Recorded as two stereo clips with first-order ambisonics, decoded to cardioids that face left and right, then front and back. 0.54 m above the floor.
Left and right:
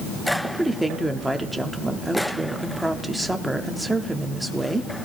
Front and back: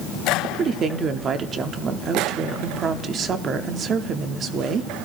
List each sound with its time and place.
0.4 s a woman speaking: 170° right, 0.7 m